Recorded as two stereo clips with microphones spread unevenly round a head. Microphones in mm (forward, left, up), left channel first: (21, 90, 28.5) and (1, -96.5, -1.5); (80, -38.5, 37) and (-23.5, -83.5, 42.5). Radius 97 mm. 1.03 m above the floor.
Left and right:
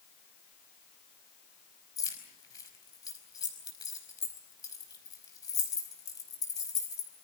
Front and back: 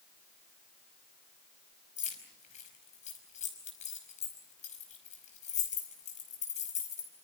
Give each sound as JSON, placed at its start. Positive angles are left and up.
{"t": 2.0, "sound": "keys jangling", "azimuth_deg": 10, "distance_m": 5.0}